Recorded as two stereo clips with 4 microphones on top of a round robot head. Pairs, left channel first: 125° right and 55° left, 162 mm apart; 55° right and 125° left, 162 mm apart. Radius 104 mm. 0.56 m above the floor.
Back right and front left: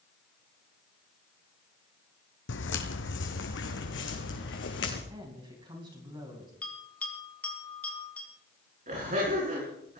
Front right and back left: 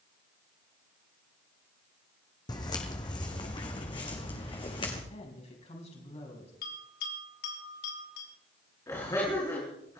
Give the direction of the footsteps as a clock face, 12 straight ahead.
4 o'clock.